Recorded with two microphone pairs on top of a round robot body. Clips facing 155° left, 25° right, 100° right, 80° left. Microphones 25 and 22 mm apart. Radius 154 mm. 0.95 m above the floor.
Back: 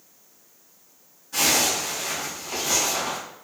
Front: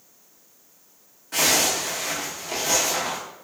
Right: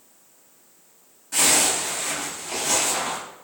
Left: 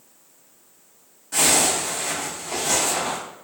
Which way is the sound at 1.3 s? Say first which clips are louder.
Front 1 dB, left 1 dB; 10° right.